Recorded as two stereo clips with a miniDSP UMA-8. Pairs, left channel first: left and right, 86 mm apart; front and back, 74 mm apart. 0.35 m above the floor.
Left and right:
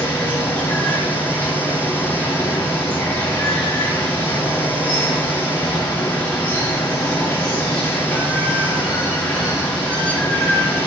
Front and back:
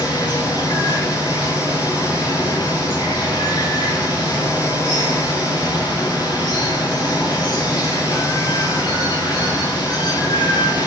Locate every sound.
0.0 s running water: 20° left, 4 m